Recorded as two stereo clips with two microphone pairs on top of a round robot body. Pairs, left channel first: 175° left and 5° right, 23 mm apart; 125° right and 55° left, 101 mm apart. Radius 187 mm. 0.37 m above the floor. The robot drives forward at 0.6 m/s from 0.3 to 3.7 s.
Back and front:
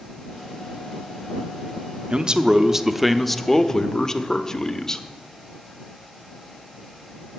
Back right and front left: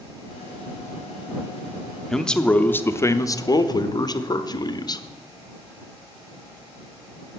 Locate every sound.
2.1 s a man speaking: 40° right, 1.1 m; by 5.0 s 130° right, 1.0 m